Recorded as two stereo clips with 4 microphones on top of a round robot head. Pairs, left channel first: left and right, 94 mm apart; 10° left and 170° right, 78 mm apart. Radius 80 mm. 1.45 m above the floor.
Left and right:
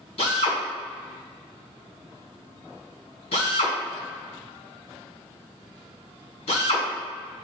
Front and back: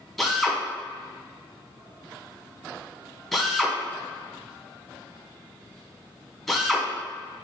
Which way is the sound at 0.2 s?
100° left.